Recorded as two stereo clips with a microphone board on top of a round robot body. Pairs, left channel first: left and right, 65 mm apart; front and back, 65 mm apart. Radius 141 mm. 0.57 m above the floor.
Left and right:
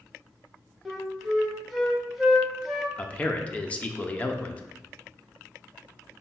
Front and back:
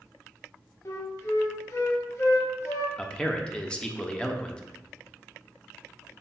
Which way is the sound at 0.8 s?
5° right.